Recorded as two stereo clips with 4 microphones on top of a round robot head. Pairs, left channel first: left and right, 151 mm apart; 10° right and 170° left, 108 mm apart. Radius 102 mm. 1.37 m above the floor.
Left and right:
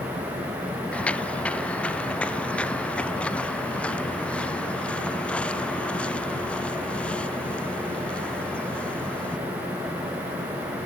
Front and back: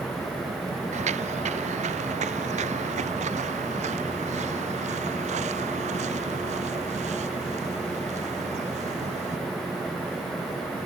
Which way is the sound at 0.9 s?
170° left.